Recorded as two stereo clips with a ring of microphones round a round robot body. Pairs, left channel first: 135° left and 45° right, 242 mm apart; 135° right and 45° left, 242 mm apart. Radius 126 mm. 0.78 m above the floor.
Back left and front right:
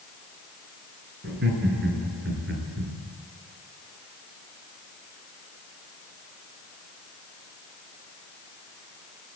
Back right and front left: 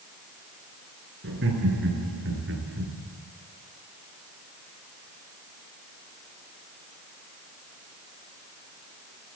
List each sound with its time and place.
1.2 s laughter: straight ahead, 9 m